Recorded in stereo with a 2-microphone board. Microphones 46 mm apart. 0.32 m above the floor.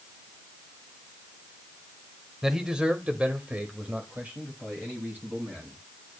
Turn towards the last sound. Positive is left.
turn(degrees=-35)  # may be behind; listen again after turning